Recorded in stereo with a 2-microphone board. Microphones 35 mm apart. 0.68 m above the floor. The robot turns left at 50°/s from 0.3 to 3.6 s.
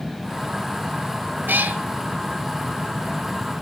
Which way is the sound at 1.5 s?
70° right (ahead or behind).